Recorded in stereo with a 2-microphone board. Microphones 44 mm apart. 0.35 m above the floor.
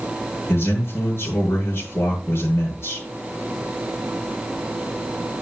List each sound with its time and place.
0.5 s a man speaking: 65° left (ahead or behind), 7.5 m